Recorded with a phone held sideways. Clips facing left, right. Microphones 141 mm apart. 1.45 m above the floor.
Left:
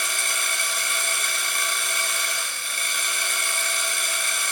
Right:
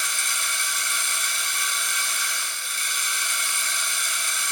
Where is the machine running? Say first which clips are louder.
Left 2 dB; 65° left (ahead or behind), 4.5 m.